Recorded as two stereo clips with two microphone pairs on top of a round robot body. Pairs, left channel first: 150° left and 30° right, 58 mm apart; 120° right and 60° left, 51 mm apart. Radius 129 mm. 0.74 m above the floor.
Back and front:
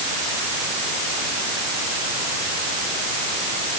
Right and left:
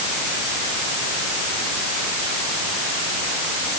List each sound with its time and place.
Only background noise.